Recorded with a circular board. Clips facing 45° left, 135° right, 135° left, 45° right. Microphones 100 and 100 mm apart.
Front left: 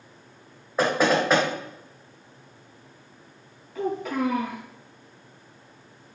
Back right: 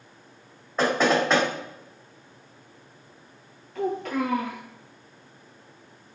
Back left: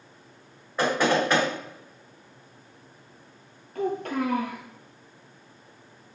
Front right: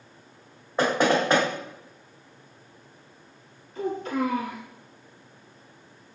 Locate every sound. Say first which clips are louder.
0.8 s knocking: even, front right 1 dB; 30° right, 1.4 m
3.8 s a child speaking: even, even; 130° left, 1.8 m